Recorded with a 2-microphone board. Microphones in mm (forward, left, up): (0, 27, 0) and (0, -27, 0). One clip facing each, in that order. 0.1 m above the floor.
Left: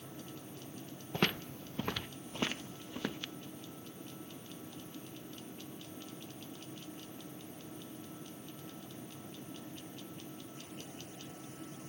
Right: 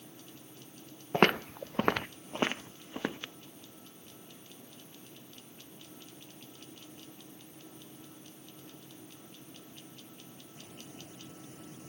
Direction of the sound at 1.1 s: 40° right (ahead or behind).